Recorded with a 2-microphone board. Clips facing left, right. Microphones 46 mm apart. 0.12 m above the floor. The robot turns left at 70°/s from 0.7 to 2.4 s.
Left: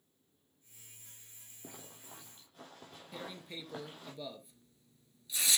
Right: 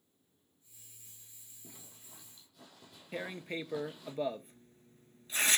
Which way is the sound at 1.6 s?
85° left.